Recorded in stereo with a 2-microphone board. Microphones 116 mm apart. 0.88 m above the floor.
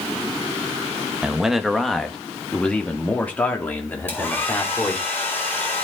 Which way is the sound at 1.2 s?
10° right (ahead or behind).